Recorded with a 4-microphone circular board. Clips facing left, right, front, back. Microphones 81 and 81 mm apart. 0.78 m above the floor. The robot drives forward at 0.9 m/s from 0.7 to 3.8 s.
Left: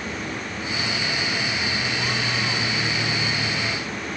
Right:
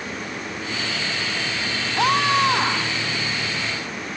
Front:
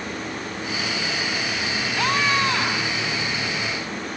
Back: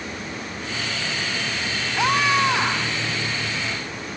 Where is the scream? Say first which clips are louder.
Right 8 dB, back 3 dB; 100° right; by 3.0 s 105° right.